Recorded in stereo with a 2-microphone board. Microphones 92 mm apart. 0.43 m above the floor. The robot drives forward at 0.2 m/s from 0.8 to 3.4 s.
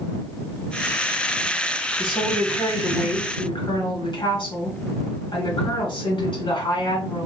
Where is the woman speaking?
60° left (ahead or behind), 1.6 m.